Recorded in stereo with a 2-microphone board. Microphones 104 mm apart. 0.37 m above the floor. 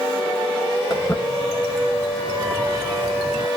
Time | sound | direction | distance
0.9 | footsteps | 35° left (ahead or behind) | 1.7 m